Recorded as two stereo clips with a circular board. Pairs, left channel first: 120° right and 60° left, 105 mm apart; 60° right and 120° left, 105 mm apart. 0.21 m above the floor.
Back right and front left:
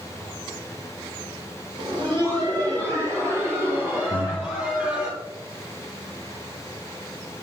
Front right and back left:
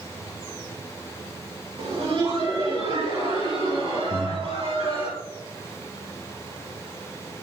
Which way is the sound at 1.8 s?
95° left.